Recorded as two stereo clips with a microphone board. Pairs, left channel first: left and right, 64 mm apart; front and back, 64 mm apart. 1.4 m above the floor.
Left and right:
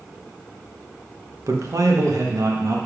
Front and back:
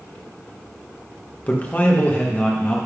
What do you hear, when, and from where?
1.5 s a man speaking: 60° right, 1.4 m